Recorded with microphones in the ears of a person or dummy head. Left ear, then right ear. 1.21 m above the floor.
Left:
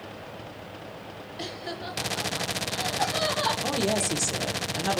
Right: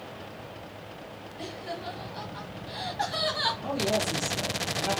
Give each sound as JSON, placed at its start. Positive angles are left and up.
{"t": 1.4, "sound": "laughter", "side_deg": 30, "distance_m": 0.8}
{"t": 3.6, "sound": "a woman speaking", "side_deg": 70, "distance_m": 1.0}